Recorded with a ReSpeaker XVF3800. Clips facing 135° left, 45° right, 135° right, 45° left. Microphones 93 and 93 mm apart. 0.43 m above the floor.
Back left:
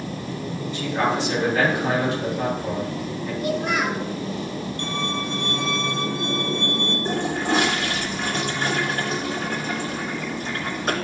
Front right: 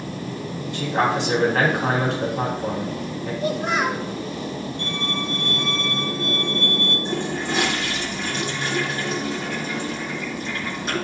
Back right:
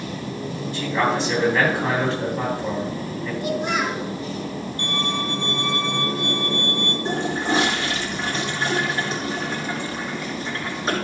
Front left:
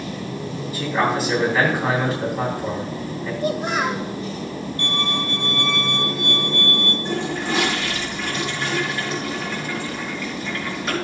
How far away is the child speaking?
About 1.2 m.